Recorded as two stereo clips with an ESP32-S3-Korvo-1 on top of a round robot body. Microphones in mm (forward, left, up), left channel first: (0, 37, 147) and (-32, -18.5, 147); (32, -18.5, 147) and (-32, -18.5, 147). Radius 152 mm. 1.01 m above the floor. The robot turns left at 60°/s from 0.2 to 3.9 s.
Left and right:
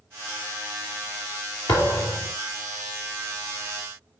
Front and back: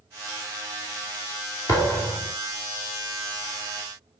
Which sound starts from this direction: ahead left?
A thud, at 1.7 s.